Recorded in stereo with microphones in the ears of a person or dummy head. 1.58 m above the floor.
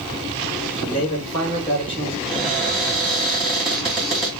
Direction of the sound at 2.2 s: Centre (ahead or behind).